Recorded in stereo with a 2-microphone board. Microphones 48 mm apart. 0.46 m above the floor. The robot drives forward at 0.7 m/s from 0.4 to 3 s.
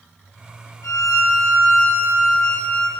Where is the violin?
85° left, 0.8 m; by 2.9 s 30° left (ahead or behind), 1.6 m.